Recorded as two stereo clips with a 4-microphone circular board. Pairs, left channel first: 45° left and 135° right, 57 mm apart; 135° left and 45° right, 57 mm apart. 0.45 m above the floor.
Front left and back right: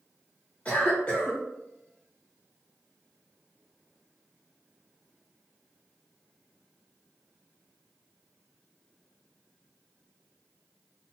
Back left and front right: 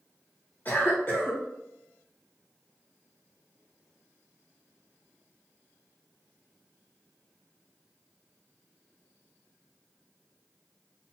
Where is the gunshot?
No gunshot in this recording.